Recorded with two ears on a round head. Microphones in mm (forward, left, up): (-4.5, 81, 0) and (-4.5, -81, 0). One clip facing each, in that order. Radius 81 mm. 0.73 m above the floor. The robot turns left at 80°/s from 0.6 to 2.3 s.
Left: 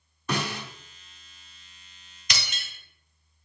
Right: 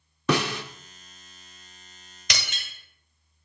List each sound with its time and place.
0.3 s a snare drum: 55° right (ahead or behind), 0.7 m
2.3 s breaking glass: 55° right (ahead or behind), 1.5 m